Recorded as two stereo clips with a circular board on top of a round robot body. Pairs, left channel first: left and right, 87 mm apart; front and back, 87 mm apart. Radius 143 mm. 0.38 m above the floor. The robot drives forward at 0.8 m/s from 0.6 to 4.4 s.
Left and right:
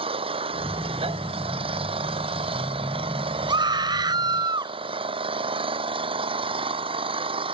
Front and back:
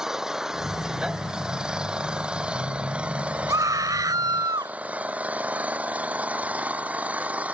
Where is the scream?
125° right; by 4.8 s 130° right.